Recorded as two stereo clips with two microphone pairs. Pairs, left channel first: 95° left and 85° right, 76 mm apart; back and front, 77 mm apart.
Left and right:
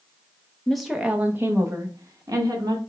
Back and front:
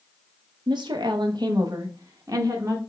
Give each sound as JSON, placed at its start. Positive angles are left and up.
{"t": 0.7, "sound": "a woman speaking", "azimuth_deg": 15, "distance_m": 0.5}